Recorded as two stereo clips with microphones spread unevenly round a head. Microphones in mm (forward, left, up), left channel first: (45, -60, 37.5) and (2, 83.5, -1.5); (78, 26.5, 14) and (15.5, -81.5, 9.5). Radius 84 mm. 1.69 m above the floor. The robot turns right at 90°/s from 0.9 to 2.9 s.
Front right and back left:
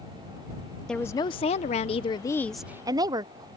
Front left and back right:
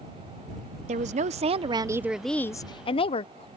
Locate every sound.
0.9 s a woman speaking: 145° right; by 3.5 s 35° left